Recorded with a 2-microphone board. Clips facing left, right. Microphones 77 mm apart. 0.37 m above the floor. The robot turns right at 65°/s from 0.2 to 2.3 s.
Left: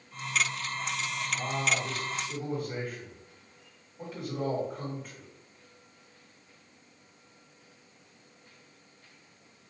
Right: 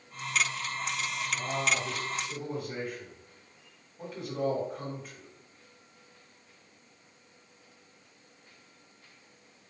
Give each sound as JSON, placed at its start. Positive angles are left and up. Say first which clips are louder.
{"t": 1.3, "sound": "a man speaking", "louder": "even", "azimuth_deg": 115, "distance_m": 1.7}